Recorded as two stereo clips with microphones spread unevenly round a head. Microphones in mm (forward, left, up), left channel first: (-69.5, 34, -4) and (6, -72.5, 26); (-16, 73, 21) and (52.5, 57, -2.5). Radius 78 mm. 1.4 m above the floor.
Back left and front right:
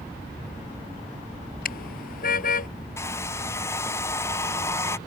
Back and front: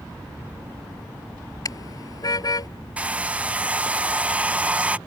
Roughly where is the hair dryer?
Ahead left.